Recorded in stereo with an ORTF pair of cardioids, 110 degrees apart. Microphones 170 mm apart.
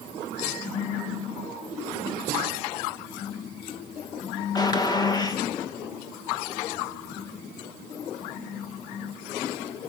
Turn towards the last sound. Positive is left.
turn(degrees=25)